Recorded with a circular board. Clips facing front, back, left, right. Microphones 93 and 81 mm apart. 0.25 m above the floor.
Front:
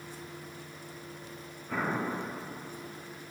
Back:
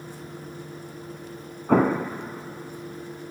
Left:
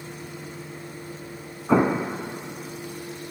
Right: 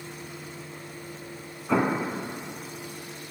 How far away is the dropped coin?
I don't hear a dropped coin.